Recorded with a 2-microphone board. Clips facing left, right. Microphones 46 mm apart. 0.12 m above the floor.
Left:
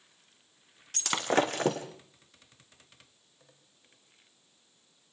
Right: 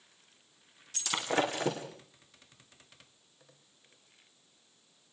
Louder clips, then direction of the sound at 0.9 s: Left 4 dB; 60° left (ahead or behind).